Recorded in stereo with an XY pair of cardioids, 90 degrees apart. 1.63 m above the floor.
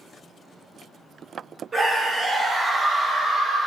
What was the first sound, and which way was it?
A scream, 30° right.